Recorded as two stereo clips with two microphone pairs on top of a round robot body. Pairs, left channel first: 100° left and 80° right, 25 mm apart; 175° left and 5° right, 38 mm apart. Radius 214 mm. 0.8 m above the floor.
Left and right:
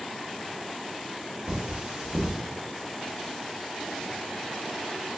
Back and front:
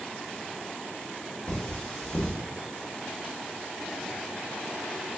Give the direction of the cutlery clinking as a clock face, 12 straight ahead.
4 o'clock.